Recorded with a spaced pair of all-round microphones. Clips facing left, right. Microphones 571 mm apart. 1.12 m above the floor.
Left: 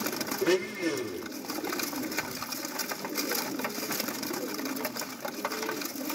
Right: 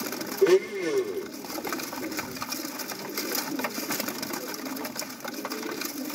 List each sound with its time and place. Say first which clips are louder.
0.4 s a blender: right 7 dB; 35° left (ahead or behind), 1.9 m